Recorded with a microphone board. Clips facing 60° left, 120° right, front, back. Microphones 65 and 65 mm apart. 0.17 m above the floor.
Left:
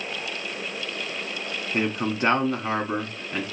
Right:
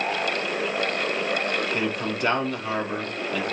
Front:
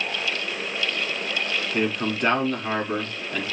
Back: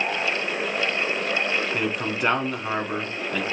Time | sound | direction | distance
1.7 | a man speaking | 105° left | 1.2 m